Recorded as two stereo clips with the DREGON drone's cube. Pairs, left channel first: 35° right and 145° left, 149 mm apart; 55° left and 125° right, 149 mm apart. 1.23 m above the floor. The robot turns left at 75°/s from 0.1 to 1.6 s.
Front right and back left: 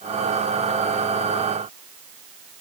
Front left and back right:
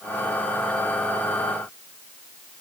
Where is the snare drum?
No snare drum in this recording.